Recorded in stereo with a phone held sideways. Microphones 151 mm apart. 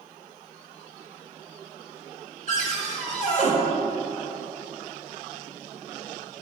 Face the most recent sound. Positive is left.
turn(degrees=55)  # may be behind; listen again after turning